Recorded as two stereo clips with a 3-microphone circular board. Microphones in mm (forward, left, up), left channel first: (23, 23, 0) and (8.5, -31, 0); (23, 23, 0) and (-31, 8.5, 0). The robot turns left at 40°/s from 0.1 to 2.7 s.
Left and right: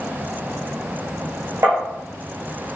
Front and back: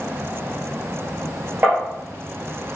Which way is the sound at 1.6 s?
120° right.